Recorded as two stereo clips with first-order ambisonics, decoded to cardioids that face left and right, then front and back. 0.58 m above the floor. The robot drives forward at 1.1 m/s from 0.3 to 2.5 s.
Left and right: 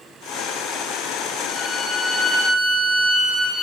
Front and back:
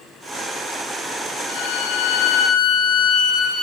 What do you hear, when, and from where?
1.5 s a violin: 5° left, 5.5 m; by 3.6 s 10° left, 4.5 m